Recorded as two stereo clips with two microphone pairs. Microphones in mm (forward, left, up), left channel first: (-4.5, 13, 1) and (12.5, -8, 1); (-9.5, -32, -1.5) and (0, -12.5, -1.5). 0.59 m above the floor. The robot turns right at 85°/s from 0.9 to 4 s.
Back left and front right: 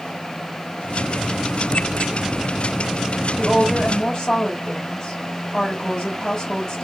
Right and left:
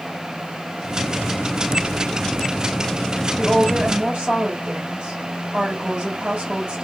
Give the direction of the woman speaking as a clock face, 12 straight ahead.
11 o'clock.